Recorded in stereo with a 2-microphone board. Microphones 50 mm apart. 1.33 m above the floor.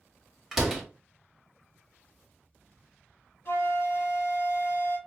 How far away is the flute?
About 1.7 m.